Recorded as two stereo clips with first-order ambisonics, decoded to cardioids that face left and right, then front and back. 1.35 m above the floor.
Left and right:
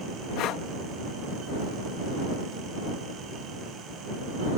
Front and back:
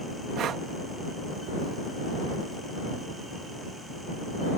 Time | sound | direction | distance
0.4 | breathing | 130° left | ?